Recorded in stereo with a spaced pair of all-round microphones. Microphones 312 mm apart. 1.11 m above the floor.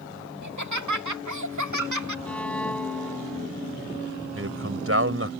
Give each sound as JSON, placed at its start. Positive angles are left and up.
{"t": 0.4, "sound": "laughter", "side_deg": -75}
{"t": 2.2, "sound": "a violin", "side_deg": 5}
{"t": 4.3, "sound": "a man speaking", "side_deg": -50}